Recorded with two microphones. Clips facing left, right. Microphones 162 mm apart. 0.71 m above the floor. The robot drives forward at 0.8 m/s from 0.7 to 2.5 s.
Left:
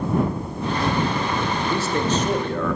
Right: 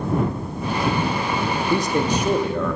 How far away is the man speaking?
About 0.5 m.